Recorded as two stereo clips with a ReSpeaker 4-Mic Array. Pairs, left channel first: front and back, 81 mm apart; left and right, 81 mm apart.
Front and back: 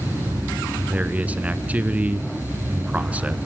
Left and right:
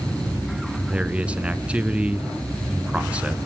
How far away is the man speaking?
About 1.1 m.